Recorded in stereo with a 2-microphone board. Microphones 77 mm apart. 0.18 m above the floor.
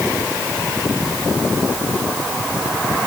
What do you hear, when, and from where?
Only background noise.